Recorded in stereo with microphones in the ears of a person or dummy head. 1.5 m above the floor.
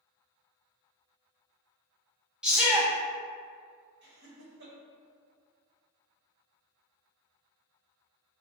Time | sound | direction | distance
2.4 | a shout | 5° right (ahead or behind) | 0.8 m
4.0 | laughter | 60° right (ahead or behind) | 0.9 m